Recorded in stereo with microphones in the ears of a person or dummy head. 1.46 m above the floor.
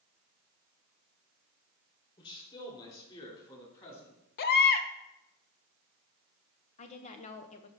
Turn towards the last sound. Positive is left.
turn(degrees=35)  # may be behind; listen again after turning